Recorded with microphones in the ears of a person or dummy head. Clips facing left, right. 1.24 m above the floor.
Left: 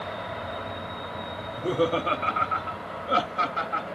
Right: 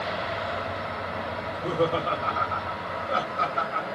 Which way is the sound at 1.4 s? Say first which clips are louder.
Left 1 dB; 5° left (ahead or behind).